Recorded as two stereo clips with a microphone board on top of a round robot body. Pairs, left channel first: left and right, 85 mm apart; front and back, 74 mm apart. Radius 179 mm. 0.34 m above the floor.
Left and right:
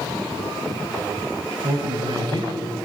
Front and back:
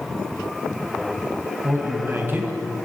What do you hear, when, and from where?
1.6 s a man speaking: 120° right, 3.5 m